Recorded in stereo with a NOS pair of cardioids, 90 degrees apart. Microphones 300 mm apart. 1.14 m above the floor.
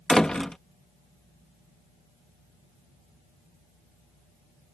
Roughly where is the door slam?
Ahead.